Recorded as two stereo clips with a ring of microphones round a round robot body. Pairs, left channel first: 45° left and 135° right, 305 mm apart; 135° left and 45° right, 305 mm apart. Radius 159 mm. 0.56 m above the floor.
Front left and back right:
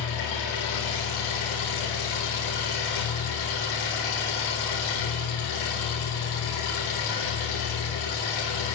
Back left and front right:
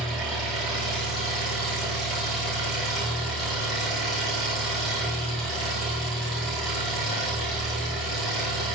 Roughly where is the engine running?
Ahead left.